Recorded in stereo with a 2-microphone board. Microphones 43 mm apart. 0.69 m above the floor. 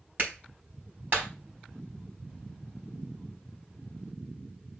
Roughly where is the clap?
Right.